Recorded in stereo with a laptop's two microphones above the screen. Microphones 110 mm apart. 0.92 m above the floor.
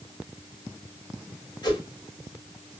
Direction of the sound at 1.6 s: 40° left (ahead or behind).